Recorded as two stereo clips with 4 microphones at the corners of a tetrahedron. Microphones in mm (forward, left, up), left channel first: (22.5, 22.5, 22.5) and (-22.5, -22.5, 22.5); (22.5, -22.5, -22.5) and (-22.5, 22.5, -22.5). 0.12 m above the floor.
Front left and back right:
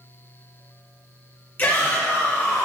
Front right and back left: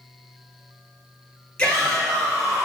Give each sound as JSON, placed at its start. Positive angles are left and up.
{"t": 1.6, "sound": "a shout", "azimuth_deg": 15, "distance_m": 1.3}